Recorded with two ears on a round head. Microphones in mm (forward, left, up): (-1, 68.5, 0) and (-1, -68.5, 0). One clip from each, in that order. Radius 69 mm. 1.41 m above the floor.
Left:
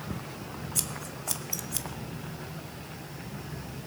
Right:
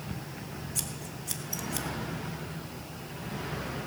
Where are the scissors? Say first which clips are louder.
Left 3 dB; 15° left (ahead or behind), 0.9 m.